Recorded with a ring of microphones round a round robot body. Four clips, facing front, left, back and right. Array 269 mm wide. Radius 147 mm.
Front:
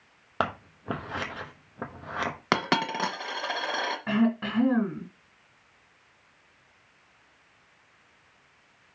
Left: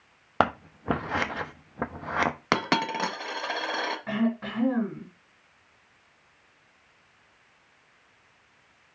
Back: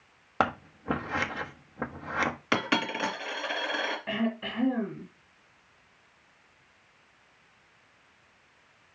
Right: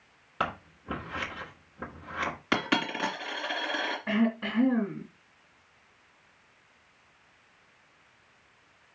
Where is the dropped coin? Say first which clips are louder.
Left 1 dB, front 4 dB; 45° left, 1.7 m.